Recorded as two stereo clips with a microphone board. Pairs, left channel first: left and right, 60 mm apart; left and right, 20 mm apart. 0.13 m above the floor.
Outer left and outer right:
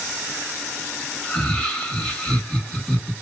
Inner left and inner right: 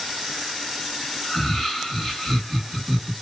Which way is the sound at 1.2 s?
15° left (ahead or behind).